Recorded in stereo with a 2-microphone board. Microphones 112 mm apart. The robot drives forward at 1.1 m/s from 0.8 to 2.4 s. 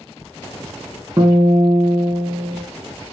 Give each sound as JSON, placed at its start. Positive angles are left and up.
{"t": 1.2, "sound": "a guitar", "side_deg": -35, "distance_m": 1.6}